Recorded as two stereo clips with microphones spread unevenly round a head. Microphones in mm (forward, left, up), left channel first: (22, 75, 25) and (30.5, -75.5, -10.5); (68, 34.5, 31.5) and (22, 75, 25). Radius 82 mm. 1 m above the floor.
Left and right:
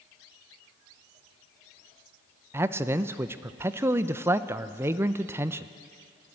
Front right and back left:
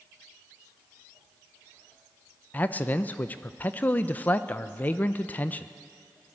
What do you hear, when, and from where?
2.5 s a man speaking: 85° right, 0.6 m